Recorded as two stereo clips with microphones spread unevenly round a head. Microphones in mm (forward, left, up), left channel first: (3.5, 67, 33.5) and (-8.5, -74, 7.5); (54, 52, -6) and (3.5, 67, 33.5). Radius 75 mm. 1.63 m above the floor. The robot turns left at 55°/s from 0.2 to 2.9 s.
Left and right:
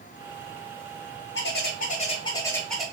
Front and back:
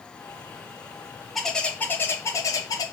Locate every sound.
1.4 s a bird: 75° left, 1.1 m; by 2.9 s 5° right, 1.1 m